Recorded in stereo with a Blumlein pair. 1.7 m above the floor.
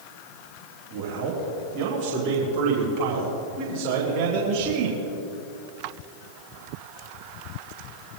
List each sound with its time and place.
0.9 s a man speaking: 50° right, 4.5 m; by 5.0 s 45° right, 6.5 m